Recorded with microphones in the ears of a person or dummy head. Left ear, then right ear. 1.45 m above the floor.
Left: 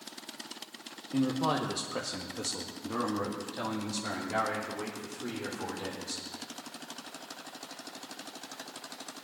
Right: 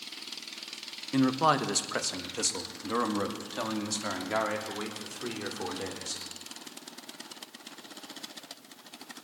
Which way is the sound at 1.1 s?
55° right (ahead or behind).